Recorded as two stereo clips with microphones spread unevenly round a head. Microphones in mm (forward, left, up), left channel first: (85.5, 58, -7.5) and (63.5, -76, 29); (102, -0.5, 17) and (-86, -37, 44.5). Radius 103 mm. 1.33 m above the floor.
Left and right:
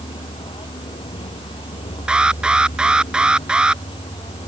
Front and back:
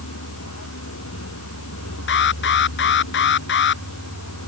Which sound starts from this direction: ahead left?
A vehicle, at 0.0 s.